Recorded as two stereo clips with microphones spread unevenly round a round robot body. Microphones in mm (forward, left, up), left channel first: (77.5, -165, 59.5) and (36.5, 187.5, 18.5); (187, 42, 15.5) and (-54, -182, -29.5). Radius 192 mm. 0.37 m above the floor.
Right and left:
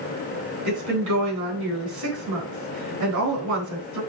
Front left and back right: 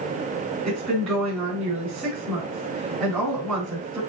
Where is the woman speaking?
135° left, 4.5 m.